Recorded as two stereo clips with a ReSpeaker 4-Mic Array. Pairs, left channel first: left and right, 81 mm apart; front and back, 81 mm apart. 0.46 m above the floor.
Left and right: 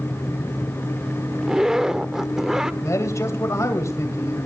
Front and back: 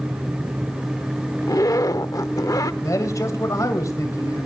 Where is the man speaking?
40° left, 2.5 m.